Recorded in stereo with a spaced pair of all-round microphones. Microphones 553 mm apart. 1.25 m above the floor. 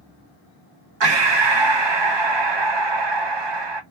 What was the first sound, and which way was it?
Breathing, 55° right (ahead or behind).